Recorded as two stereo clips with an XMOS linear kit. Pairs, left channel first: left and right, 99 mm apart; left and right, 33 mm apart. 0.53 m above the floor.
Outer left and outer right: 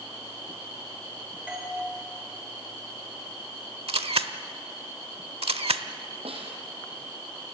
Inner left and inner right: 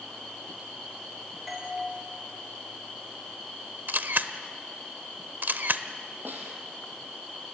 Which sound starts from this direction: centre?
A doorbell, at 1.5 s.